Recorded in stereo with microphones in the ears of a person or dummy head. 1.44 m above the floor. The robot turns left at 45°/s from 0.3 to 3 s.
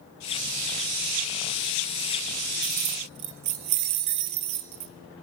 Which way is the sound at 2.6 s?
50° right (ahead or behind).